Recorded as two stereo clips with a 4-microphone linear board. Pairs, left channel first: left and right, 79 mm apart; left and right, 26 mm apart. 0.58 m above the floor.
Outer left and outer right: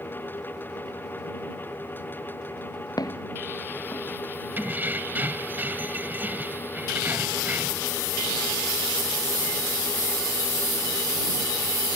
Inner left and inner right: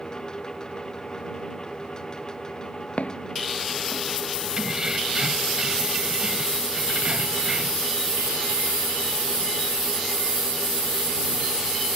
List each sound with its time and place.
3.0 s footsteps: 55° left (ahead or behind)
4.6 s keys jangling: 25° right (ahead or behind)